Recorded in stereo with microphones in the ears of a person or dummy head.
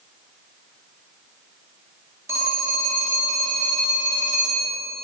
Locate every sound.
2.3 s a phone ringing: 10° right (ahead or behind), 2.0 m